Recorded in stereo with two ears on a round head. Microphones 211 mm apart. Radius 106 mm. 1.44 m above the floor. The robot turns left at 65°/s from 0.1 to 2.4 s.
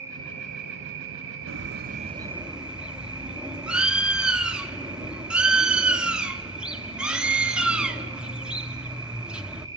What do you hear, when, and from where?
0.0 s an insect: 15° right, 2.5 m; by 9.8 s 165° right, 2.5 m
1.5 s a bird: 115° right, 1.1 m; by 9.7 s 175° right, 1.1 m